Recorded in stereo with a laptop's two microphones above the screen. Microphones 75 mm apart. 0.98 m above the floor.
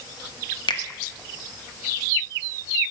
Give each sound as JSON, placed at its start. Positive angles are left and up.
{"t": 0.7, "sound": "a finger snap", "side_deg": 75, "distance_m": 1.0}